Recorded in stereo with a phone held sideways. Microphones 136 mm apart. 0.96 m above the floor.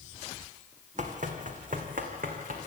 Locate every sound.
1.0 s running footsteps: 60° right (ahead or behind), 2.5 m; by 2.7 s 75° right (ahead or behind), 3.5 m